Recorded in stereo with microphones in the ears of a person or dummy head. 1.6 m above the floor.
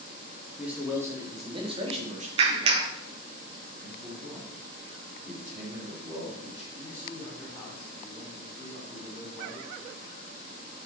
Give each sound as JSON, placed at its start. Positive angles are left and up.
{"t": 0.6, "sound": "a man speaking", "side_deg": -5, "distance_m": 1.4}
{"t": 2.4, "sound": "a clap", "side_deg": -35, "distance_m": 0.8}
{"t": 3.8, "sound": "a man speaking", "side_deg": -15, "distance_m": 4.0}
{"t": 6.8, "sound": "a man speaking", "side_deg": 20, "distance_m": 2.5}